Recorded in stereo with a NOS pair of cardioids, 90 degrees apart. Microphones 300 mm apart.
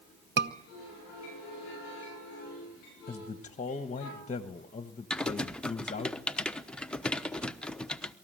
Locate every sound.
0.4 s a scream: 40° right, 1.1 m
3.1 s a man speaking: 25° left, 1.3 m
5.1 s typing on a keyboard: 5° left, 1.0 m